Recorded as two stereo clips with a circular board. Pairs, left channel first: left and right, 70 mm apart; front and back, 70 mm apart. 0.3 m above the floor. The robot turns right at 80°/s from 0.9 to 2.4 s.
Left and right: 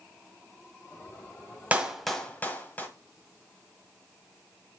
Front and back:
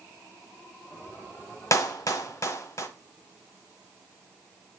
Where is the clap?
25° right, 1.1 m; by 2.9 s 30° left, 1.1 m.